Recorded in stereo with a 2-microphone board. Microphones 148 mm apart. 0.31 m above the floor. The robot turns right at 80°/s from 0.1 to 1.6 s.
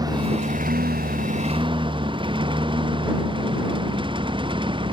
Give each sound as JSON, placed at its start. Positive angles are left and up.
{"t": 0.0, "sound": "a lawn mower", "side_deg": -25}